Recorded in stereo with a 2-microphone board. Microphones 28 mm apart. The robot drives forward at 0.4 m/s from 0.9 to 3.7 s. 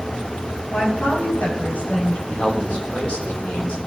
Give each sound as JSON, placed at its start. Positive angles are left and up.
{"t": 0.7, "sound": "a woman speaking", "side_deg": 60, "distance_m": 5.5}
{"t": 2.3, "sound": "a man speaking", "side_deg": 40, "distance_m": 3.0}